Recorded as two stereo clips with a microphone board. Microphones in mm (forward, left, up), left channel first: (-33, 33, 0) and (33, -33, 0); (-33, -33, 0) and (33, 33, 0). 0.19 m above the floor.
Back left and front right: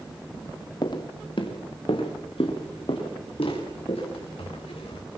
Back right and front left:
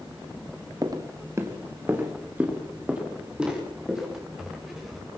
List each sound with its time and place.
0.8 s footsteps: 95° left, 2.5 m; by 5.0 s 130° left, 7.5 m